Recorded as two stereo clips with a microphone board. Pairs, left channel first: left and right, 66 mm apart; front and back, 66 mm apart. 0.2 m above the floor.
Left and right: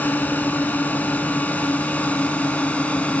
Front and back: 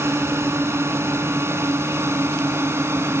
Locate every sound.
0.0 s a drone: 145° left; by 3.2 s 150° left